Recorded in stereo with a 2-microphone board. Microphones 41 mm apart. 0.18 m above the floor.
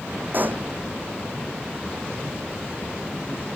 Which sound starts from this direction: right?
A pop, at 0.3 s.